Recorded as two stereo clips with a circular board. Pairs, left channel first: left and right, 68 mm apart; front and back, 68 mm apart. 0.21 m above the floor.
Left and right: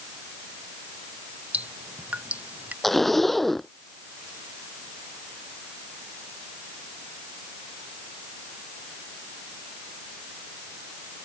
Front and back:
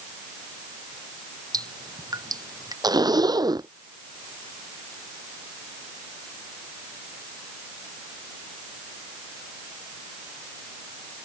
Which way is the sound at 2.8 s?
175° left.